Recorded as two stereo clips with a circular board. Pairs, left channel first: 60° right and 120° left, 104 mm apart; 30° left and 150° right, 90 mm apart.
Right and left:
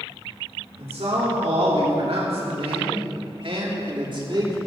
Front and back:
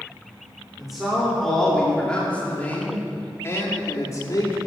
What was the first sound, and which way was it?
A man speaking, 125° left.